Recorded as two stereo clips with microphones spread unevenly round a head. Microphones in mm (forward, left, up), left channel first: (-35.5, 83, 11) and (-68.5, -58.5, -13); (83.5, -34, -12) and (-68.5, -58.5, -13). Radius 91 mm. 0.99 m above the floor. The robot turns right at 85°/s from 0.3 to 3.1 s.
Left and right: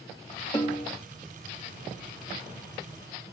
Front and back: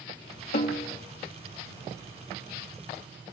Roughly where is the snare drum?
Ahead.